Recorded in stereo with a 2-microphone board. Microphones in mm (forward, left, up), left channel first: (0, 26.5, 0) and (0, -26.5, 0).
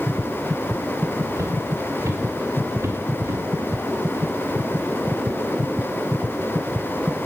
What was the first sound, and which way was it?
Footsteps, 85° right.